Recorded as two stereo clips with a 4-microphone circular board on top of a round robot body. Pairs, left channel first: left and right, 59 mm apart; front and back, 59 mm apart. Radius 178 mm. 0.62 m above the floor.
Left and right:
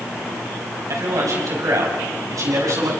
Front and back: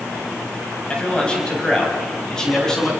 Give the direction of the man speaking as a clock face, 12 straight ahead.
2 o'clock.